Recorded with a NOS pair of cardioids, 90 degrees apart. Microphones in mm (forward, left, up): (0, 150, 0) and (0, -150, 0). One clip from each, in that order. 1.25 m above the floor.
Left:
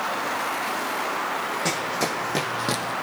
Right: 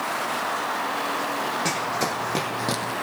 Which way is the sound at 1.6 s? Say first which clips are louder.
Even; 5° left.